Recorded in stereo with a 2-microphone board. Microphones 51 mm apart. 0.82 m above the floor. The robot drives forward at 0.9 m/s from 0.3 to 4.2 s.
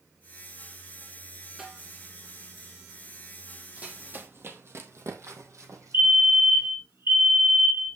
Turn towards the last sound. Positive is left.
turn(degrees=-45)  # may be behind; listen again after turning